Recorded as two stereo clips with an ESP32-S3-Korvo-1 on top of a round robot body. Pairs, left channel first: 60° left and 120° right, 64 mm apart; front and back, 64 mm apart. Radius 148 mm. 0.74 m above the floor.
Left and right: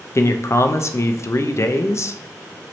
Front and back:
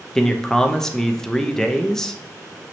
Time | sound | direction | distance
0.1 | a man speaking | 80° left | 0.5 m